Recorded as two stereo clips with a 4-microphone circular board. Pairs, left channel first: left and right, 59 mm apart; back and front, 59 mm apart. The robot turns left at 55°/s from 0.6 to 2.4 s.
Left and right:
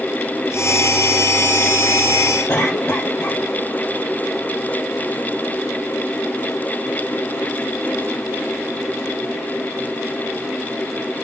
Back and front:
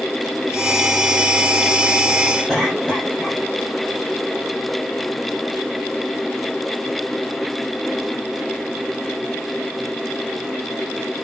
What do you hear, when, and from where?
2.5 s a cough: 90° left, 2 m